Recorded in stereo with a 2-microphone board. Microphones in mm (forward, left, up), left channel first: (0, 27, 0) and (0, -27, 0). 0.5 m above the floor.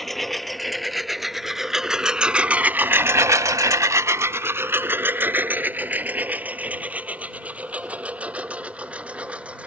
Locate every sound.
0.0 s a lawn mower: 5° left (ahead or behind); by 9.7 s 25° right (ahead or behind)